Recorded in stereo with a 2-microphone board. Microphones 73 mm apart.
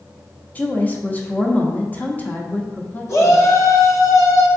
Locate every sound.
0.6 s a woman speaking: 25° left (ahead or behind), 0.6 m
3.1 s a shout: 45° left (ahead or behind), 1.2 m